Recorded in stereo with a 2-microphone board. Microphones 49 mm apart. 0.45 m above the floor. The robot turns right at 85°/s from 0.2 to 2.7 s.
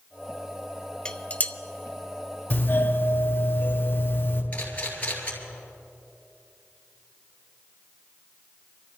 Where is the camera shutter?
30° left (ahead or behind), 2.5 m.